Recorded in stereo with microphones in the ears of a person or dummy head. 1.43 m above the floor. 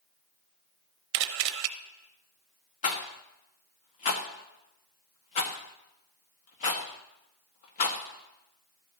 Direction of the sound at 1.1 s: 55° right (ahead or behind).